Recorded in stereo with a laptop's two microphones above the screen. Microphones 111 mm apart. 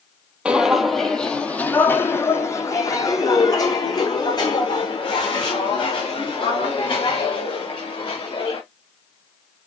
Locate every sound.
0.5 s footsteps: 10° right (ahead or behind), 1.3 m; by 8.6 s 50° left (ahead or behind), 5.5 m